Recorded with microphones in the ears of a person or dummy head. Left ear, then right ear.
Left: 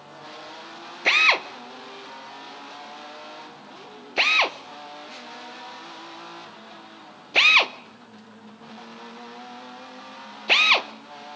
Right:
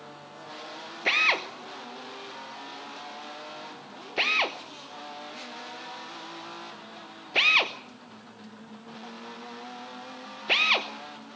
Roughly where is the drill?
Left.